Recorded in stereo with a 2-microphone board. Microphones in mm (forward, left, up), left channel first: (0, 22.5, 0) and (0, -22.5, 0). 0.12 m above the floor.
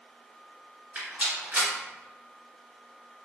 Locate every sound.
0.9 s a rattle: 30° right (ahead or behind), 1.8 m